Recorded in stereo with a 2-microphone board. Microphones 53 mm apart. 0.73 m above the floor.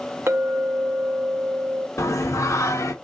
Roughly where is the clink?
Right.